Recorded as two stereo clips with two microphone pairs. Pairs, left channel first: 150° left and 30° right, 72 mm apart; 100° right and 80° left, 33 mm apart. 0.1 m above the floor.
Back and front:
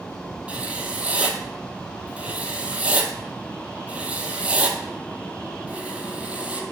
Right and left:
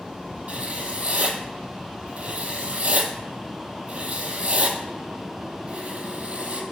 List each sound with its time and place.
0.5 s writing: 40° left, 0.6 m